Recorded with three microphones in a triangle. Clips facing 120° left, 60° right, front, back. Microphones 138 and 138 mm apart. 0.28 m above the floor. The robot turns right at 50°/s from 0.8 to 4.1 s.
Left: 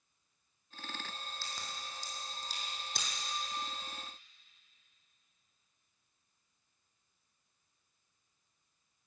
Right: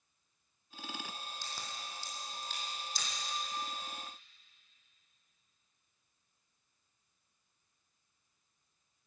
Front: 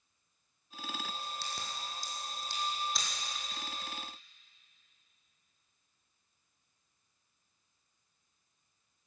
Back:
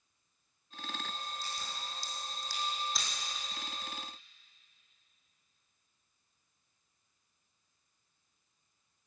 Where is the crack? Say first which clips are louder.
Even, front 1 dB; 15° left, 3.5 m; by 3.1 s 95° left, 3.5 m.